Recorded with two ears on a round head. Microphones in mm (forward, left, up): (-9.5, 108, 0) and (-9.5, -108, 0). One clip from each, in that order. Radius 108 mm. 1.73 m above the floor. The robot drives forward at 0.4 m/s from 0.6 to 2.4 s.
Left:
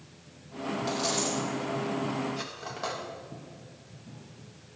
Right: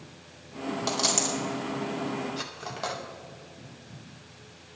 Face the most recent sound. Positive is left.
turn(degrees=-20)  # may be behind; listen again after turning